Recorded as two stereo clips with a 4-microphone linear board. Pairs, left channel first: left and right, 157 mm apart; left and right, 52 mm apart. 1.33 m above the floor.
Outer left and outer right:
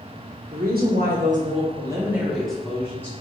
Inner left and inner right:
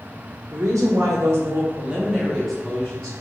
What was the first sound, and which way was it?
A woman speaking, 75° right (ahead or behind).